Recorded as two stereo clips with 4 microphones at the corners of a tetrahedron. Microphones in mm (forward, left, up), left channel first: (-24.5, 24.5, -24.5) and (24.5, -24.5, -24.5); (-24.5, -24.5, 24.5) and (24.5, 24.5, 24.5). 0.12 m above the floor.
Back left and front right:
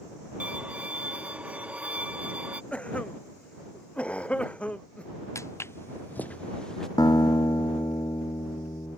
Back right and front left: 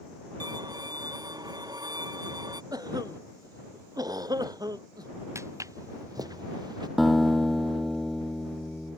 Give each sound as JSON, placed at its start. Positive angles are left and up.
{"t": 0.4, "sound": "a violin", "azimuth_deg": 25}
{"t": 2.7, "sound": "a cough", "azimuth_deg": 65}
{"t": 5.3, "sound": "footsteps", "azimuth_deg": 90}
{"t": 7.0, "sound": "a guitar", "azimuth_deg": 135}